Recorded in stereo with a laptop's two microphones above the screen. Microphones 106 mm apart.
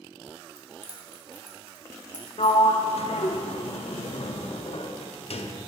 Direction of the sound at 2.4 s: 70° left (ahead or behind).